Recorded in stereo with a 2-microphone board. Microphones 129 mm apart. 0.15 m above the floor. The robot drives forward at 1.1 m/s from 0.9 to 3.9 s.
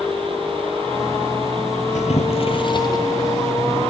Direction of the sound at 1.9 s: 65° left (ahead or behind).